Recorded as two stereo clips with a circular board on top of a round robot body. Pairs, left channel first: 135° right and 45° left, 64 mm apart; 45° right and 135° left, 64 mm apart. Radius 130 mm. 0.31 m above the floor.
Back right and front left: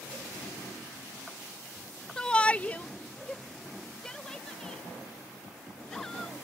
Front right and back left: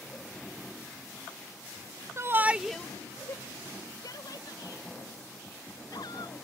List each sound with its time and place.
2.2 s a shout: 150° left; by 6.5 s 55° right